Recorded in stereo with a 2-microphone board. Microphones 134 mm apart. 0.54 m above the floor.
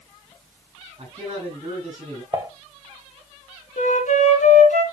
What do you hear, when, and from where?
1.0 s a man speaking: 40° right (ahead or behind), 7 m
2.3 s dishes clattering: 30° right (ahead or behind), 1.8 m
3.8 s a flute: 70° left (ahead or behind), 2.5 m